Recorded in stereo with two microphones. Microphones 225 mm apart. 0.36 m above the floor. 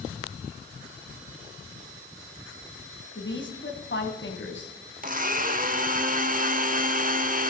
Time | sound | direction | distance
3.1 | a woman speaking | 55° left (ahead or behind) | 3 m
5.0 | a blender | 40° right (ahead or behind) | 0.9 m